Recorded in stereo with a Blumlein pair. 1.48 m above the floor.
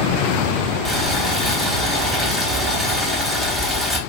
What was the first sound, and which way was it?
Boiling, 5° left.